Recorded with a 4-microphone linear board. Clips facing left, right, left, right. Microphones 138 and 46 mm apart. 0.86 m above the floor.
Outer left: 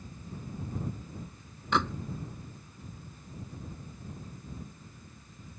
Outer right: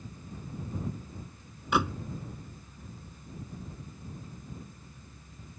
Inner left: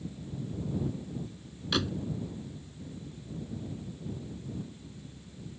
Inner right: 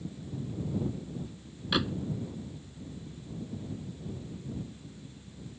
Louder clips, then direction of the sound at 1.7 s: Outer right 1 dB, inner right 1 dB; 10° right (ahead or behind).